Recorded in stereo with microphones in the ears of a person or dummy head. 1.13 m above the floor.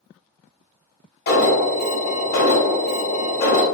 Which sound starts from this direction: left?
An alarm, at 1.3 s.